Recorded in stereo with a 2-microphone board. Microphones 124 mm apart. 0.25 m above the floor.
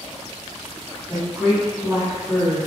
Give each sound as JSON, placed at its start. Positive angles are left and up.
{"t": 1.1, "sound": "a woman speaking", "side_deg": 5, "distance_m": 1.2}